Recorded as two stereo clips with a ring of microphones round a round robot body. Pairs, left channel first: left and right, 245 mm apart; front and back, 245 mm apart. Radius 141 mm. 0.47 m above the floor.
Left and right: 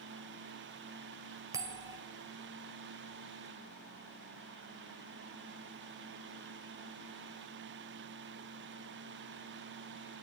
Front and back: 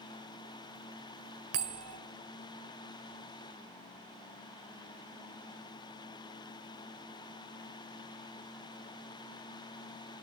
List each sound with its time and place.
1.5 s a bell: 165° right, 2.5 m